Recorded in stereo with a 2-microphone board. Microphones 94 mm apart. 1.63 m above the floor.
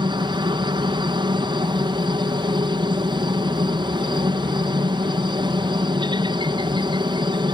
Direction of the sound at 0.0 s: 55° right (ahead or behind).